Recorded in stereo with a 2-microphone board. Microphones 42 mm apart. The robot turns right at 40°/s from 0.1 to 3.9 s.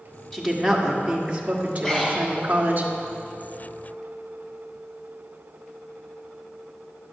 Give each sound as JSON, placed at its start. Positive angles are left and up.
{"t": 0.3, "sound": "a woman speaking", "azimuth_deg": 170, "distance_m": 1.5}
{"t": 1.8, "sound": "breathing", "side_deg": 10, "distance_m": 1.7}